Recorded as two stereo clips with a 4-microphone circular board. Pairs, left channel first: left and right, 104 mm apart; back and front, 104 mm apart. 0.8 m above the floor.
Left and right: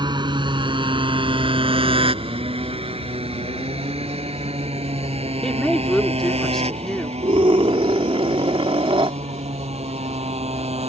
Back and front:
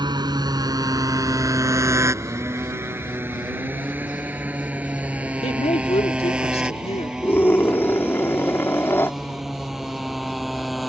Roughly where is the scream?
Behind right.